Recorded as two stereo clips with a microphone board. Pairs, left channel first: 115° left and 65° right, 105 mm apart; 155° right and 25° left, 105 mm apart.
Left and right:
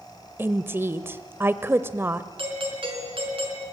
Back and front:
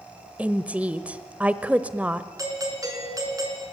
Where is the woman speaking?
35° right, 1.1 m.